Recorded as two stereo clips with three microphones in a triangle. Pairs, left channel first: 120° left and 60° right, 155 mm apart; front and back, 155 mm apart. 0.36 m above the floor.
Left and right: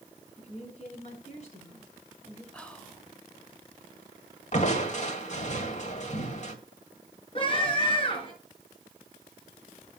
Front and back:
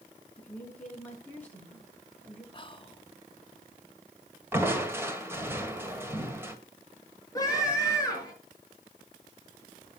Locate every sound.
0.4 s a woman speaking: 80° left, 4.5 m
2.5 s whispering: 40° left, 1.1 m
4.5 s crushing: 110° left, 1.6 m
7.3 s a scream: 70° left, 6 m